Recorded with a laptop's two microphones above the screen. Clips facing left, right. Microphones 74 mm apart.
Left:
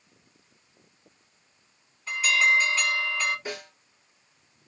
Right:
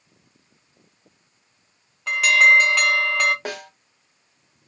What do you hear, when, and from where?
2.1 s an alarm: 75° right (ahead or behind), 0.8 m
3.5 s a snare drum: 75° right (ahead or behind), 0.8 m